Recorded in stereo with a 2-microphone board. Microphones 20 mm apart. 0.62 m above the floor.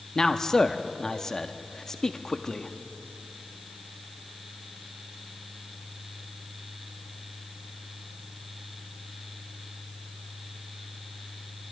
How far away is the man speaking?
About 0.5 m.